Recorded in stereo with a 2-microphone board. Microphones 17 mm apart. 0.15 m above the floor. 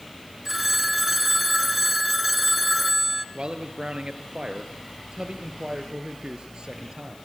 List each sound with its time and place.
0.5 s a phone ringing: 15° right (ahead or behind), 1.3 m
3.4 s a man speaking: 65° right (ahead or behind), 2.5 m